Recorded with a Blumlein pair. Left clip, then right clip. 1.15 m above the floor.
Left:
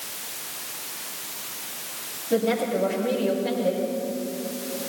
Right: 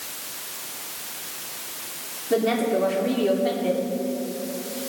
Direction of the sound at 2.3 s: 65° right.